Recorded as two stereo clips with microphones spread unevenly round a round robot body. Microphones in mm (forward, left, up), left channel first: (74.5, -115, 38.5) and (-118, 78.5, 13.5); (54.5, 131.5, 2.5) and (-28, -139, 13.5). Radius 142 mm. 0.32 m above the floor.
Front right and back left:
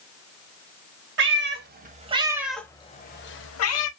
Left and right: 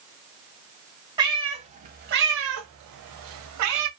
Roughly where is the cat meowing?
Behind.